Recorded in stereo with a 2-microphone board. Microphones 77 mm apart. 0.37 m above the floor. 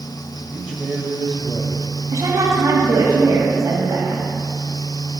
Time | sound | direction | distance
0.5 | a man speaking | 10° right (ahead or behind) | 2.0 m
2.1 | a woman speaking | 45° right (ahead or behind) | 2.5 m